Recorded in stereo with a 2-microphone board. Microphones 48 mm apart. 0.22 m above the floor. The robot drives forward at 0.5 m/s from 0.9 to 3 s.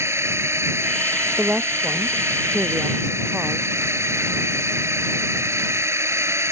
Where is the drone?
65° right (ahead or behind).